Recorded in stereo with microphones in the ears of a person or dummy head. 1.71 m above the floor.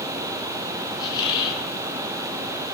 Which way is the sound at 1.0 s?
25° left (ahead or behind).